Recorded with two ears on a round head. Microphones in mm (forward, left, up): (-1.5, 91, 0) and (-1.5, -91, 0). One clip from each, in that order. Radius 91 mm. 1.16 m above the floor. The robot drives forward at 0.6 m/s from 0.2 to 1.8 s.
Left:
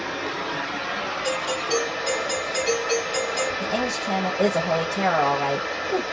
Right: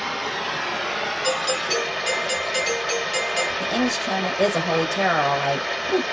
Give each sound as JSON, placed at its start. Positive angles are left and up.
{"t": 0.0, "sound": "running water", "side_deg": -70, "distance_m": 1.3}
{"t": 1.2, "sound": "a doorbell", "side_deg": -40, "distance_m": 1.5}
{"t": 3.6, "sound": "a woman speaking", "side_deg": -80, "distance_m": 1.0}